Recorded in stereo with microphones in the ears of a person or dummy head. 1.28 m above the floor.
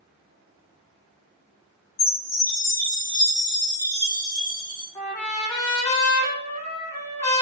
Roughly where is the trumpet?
Centre.